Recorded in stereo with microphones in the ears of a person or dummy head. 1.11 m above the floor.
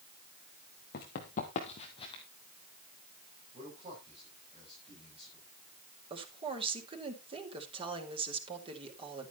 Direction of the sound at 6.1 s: 30° right (ahead or behind).